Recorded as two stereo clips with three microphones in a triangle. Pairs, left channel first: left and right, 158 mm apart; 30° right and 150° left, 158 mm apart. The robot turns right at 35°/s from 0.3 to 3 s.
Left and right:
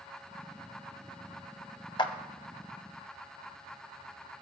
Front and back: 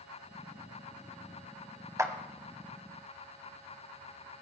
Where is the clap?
100° left, 1.1 m; by 2.1 s 105° left, 1.1 m.